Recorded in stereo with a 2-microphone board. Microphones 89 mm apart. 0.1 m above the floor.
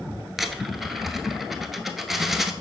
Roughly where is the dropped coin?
Centre.